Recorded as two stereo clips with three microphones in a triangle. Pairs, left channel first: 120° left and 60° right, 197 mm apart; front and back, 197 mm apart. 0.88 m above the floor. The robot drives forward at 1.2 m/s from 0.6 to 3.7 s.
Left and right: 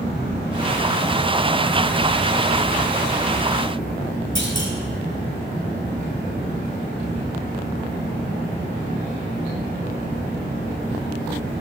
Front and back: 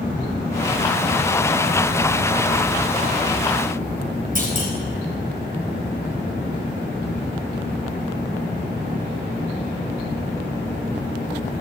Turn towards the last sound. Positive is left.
turn(degrees=135)